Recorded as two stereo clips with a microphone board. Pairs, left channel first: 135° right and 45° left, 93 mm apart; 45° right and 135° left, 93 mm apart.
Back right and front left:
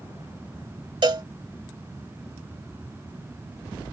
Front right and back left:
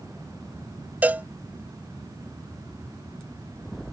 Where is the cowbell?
65° left.